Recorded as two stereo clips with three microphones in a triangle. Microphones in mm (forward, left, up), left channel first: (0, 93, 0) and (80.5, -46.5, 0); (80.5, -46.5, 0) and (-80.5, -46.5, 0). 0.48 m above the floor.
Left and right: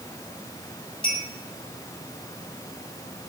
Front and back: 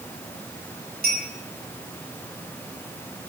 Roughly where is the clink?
Behind.